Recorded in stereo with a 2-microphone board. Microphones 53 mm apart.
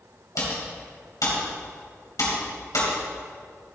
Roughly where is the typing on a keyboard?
Left.